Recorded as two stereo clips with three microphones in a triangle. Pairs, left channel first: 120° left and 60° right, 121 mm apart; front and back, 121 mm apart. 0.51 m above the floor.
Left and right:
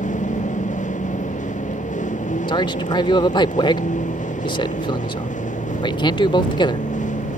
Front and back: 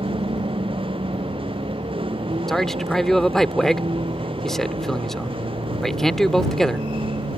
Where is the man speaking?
85° left.